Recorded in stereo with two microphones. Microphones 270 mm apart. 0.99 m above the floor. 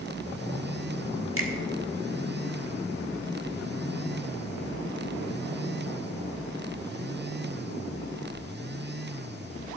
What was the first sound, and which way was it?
A finger snap, 55° right (ahead or behind).